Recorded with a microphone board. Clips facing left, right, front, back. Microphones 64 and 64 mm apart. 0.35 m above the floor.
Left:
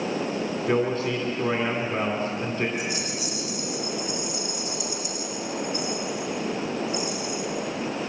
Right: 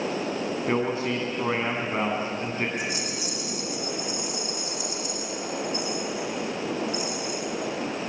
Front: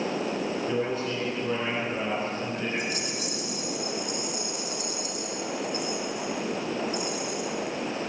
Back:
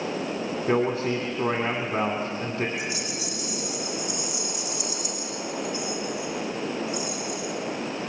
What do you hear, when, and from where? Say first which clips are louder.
0.7 s a man speaking: left 2 dB, back 9 dB; 160° right, 2.5 m
2.8 s a rattle: left 1 dB, even; 45° right, 6.5 m